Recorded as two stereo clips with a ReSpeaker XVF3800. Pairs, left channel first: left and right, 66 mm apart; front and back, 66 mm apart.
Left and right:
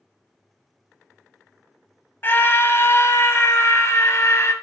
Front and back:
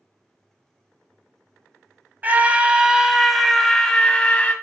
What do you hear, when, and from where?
2.2 s a scream: 125° left, 1.3 m; by 4.5 s 60° left, 1.5 m